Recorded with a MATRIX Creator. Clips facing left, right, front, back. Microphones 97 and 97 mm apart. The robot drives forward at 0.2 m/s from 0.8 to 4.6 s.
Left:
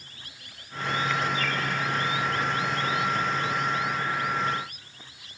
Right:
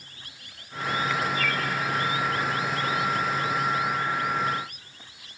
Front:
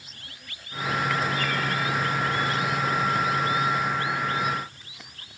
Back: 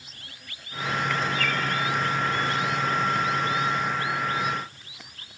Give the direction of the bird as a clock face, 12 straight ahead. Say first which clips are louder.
Right 1 dB, even; 6 o'clock.